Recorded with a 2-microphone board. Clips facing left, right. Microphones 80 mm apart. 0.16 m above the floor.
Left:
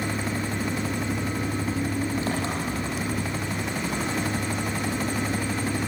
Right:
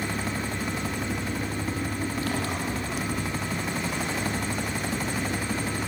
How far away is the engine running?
About 4.5 m.